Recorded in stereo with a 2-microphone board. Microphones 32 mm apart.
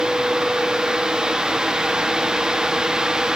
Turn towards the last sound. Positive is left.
No sound to turn to.